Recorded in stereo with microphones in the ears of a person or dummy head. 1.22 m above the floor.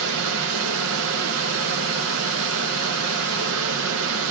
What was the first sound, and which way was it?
A fan, 70° right (ahead or behind).